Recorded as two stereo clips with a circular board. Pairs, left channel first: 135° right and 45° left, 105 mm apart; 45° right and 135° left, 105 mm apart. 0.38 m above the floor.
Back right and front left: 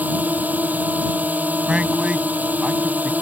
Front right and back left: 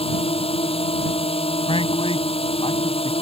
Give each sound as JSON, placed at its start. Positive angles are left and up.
{"t": 0.0, "sound": "a drone", "azimuth_deg": -30}
{"t": 1.7, "sound": "a man speaking", "azimuth_deg": -35}